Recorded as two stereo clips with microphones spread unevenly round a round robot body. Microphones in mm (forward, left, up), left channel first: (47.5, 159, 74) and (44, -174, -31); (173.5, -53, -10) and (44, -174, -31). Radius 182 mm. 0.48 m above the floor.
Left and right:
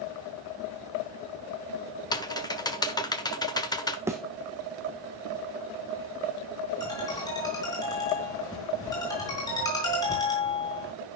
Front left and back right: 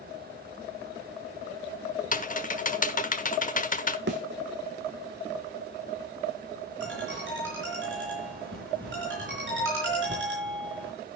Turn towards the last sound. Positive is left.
turn(degrees=170)